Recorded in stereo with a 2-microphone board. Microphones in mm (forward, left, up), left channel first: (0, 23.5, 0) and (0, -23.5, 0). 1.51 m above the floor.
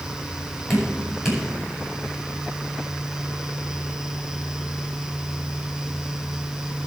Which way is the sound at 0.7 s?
5° right (ahead or behind).